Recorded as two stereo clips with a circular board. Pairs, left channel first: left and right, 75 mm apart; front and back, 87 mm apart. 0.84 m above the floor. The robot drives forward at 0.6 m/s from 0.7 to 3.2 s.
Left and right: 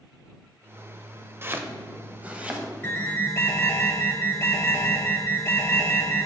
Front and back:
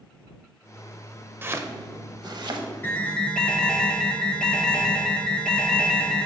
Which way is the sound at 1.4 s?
130° right.